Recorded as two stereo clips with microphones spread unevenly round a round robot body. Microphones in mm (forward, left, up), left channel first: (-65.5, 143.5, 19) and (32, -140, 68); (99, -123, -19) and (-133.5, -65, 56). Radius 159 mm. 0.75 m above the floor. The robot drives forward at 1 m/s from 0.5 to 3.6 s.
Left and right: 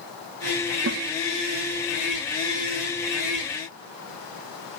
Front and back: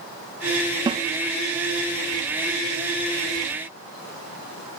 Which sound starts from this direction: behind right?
A snare drum, at 0.9 s.